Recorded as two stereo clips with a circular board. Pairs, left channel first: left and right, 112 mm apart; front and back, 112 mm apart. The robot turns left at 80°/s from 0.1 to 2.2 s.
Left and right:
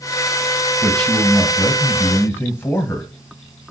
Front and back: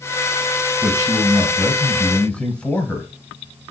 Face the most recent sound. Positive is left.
turn(degrees=60)